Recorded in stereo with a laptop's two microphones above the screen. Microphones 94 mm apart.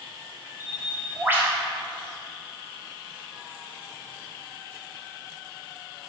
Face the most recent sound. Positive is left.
turn(degrees=-25)  # may be behind; listen again after turning